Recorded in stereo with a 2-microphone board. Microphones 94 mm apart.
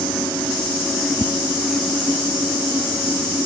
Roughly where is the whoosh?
Left.